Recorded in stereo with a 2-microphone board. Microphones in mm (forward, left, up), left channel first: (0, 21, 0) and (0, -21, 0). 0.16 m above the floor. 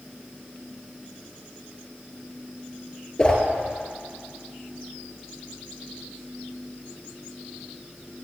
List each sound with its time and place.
3.2 s a whoosh: 25° left (ahead or behind), 1.7 m